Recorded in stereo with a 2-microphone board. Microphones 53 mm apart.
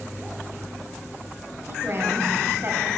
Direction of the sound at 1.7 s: 50° right (ahead or behind).